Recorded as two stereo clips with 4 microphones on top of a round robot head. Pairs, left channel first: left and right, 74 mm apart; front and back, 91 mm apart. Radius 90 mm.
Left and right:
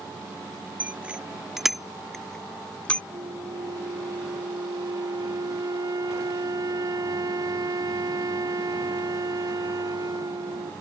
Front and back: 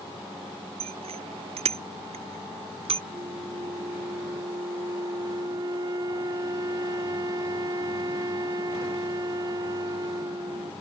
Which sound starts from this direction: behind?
A bicycle bell, at 0.8 s.